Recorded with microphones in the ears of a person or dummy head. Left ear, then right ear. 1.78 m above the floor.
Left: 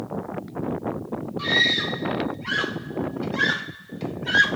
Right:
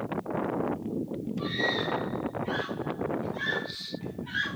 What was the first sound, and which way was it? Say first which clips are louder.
A scream: left 9 dB; 55° left (ahead or behind).